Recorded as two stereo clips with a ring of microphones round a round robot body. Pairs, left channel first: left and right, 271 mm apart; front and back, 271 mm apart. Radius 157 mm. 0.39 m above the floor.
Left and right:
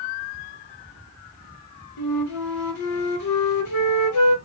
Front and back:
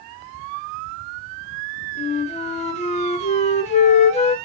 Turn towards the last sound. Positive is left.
turn(degrees=70)